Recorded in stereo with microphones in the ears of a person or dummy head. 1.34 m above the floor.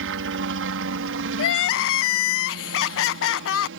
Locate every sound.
0.0 s a helicopter: 65° right (ahead or behind); by 3.8 s 60° right (ahead or behind)
1.4 s crying: 65° left (ahead or behind)